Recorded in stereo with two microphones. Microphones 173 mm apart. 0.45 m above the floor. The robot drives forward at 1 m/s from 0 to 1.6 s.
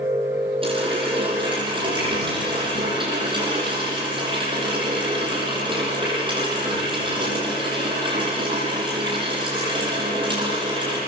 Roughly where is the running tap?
Right.